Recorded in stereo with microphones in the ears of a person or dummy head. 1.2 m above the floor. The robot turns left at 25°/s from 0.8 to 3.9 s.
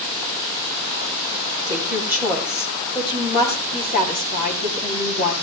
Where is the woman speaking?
165° right, 8 m; by 5.3 s 140° left, 8 m.